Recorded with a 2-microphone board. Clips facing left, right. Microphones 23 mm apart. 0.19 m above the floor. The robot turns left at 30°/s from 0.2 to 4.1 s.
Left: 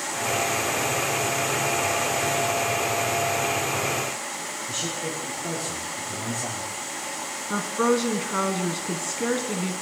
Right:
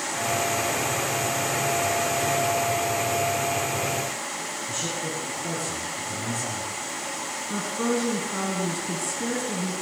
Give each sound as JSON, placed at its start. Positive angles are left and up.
{"t": 4.7, "sound": "a man speaking", "side_deg": 10, "distance_m": 3.5}
{"t": 7.5, "sound": "a woman speaking", "side_deg": 40, "distance_m": 1.4}